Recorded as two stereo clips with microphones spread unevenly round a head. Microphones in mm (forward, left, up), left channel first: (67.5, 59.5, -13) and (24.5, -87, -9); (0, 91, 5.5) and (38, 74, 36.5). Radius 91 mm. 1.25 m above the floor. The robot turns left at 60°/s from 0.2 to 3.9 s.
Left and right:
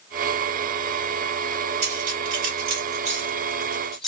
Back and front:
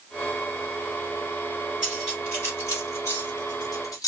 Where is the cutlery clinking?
70° right, 1.0 m; by 4.1 s 165° left, 1.0 m.